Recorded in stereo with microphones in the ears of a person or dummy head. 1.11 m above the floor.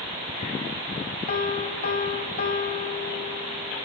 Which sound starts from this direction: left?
A piano, at 1.3 s.